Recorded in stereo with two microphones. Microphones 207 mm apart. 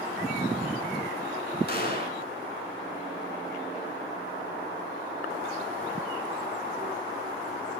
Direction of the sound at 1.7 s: 50° left (ahead or behind).